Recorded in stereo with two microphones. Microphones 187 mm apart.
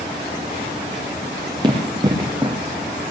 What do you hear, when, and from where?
1.6 s running footsteps: 25° right (ahead or behind), 2 m